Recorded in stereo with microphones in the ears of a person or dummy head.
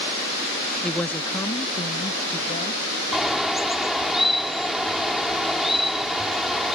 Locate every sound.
0.8 s a woman speaking: 5° left (ahead or behind); by 2.9 s 35° left (ahead or behind)
3.1 s a bird: centre (ahead or behind)